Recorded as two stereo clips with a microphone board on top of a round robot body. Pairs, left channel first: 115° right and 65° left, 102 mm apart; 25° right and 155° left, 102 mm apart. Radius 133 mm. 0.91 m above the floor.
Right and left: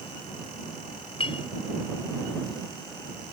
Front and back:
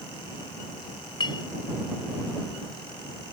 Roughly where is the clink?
Right.